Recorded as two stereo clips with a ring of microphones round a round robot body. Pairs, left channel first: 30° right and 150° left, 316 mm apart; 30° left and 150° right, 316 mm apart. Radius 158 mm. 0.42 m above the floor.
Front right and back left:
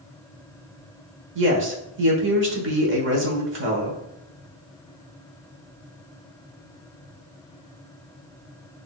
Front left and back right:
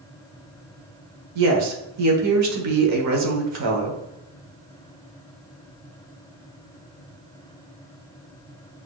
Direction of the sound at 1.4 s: 165° right.